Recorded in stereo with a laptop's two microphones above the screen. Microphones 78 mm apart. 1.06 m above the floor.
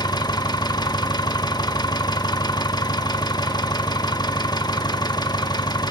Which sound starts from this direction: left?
An engine running, at 0.0 s.